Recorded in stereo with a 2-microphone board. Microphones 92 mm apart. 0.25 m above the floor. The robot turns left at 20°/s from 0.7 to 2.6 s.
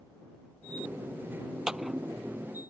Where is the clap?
10° right (ahead or behind); by 2.0 s centre (ahead or behind).